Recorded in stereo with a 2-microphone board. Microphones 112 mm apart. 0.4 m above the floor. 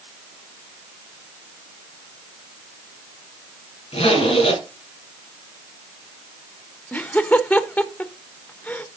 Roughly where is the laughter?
Centre.